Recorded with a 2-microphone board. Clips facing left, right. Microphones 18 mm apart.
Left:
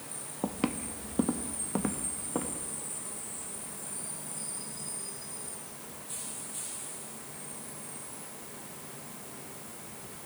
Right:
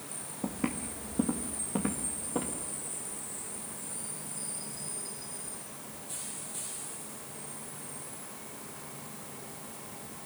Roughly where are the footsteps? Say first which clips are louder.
Left 2 dB; left.